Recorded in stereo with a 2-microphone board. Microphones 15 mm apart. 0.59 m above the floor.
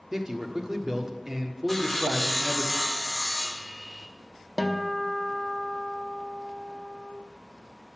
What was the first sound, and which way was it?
A man speaking, 30° right (ahead or behind).